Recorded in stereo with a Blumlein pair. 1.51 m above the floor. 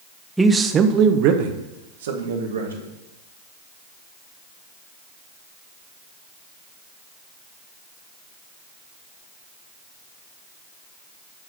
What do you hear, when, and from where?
0.4 s a man speaking: 5° right, 0.9 m; by 2.9 s 70° right, 2.5 m